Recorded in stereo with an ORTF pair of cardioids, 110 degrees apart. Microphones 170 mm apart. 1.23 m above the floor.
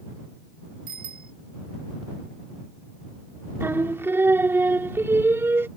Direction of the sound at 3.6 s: 15° right.